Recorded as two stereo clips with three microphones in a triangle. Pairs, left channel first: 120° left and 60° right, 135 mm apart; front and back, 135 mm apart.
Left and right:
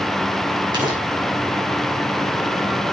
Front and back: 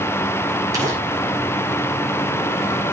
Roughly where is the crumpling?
Behind right.